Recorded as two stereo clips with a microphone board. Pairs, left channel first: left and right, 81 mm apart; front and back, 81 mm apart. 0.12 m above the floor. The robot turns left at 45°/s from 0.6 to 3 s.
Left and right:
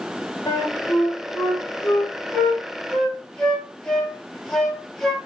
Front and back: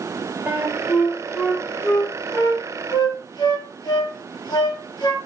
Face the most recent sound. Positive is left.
turn(degrees=10)